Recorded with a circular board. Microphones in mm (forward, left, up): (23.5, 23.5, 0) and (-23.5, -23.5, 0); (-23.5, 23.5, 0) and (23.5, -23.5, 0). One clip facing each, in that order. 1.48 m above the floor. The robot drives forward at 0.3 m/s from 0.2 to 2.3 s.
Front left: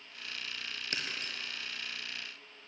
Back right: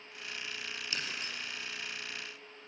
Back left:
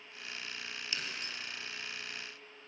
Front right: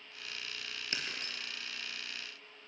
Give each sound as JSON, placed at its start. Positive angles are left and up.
{"t": 0.9, "sound": "breaking glass", "azimuth_deg": 5, "distance_m": 4.5}